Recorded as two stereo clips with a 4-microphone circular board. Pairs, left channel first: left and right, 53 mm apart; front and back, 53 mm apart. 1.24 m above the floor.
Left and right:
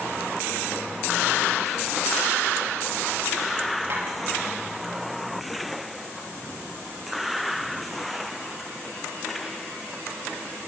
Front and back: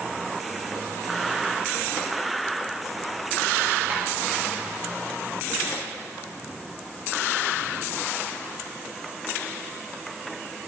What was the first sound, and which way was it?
Tapping, 120° right.